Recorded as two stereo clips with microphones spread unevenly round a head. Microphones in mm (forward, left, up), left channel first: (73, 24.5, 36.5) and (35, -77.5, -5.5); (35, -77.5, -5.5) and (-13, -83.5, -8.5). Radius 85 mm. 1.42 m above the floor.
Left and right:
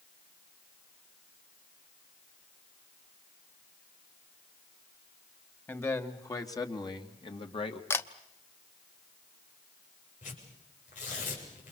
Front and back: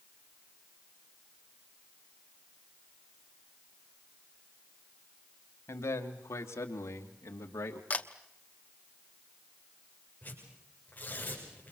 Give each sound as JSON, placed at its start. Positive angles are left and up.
{"t": 5.7, "sound": "a man speaking", "azimuth_deg": 5, "distance_m": 3.0}
{"t": 7.9, "sound": "a camera shutter", "azimuth_deg": 45, "distance_m": 1.1}
{"t": 10.2, "sound": "tearing paper", "azimuth_deg": 90, "distance_m": 7.5}